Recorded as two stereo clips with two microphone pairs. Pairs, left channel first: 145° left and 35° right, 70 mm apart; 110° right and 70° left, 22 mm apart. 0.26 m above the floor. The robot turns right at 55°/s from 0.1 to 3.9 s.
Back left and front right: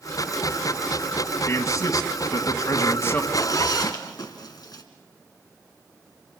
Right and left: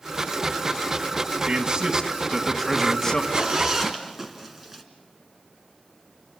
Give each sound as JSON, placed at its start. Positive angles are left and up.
{"t": 1.5, "sound": "a man speaking", "azimuth_deg": 100, "distance_m": 2.0}
{"t": 3.3, "sound": "a zipper", "azimuth_deg": 115, "distance_m": 2.5}